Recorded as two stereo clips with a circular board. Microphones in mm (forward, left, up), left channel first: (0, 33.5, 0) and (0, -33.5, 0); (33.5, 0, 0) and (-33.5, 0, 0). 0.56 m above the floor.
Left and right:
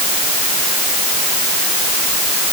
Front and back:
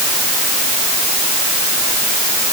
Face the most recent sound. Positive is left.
No sound to turn to.